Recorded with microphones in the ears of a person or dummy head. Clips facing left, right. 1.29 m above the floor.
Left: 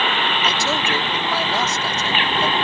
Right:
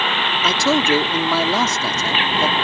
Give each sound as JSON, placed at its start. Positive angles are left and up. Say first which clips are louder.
{"t": 0.4, "sound": "a man speaking", "louder": "right 10 dB", "side_deg": -60}